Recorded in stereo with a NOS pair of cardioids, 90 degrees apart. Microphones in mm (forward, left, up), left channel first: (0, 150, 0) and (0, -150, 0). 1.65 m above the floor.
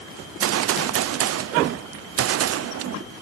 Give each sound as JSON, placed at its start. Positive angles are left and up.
{"t": 0.2, "sound": "a gunshot", "azimuth_deg": -55, "distance_m": 0.6}